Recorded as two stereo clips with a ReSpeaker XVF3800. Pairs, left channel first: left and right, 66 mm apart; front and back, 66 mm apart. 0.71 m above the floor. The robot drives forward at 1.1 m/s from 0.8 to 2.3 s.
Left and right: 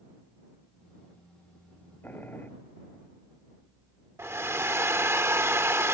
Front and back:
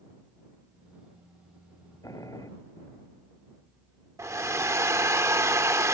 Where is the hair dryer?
135° right.